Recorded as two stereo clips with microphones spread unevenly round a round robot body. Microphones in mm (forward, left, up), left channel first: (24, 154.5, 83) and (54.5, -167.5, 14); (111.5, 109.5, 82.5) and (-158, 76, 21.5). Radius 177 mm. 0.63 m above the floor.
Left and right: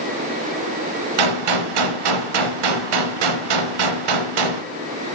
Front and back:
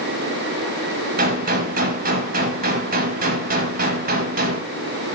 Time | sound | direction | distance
1.2 | a gunshot | 100° right | 0.6 m